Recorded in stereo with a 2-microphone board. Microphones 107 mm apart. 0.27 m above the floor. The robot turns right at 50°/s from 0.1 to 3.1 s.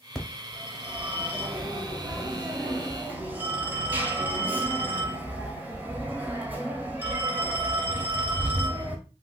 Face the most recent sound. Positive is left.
turn(degrees=-15)  # may be behind; listen again after turning